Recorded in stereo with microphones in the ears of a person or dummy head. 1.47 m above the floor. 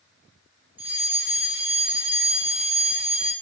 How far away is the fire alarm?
About 6 m.